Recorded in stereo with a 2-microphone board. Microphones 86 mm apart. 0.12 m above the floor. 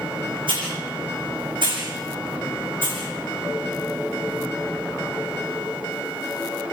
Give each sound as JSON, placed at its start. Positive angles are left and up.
{"t": 0.5, "sound": "a hiss", "side_deg": -75, "distance_m": 9.5}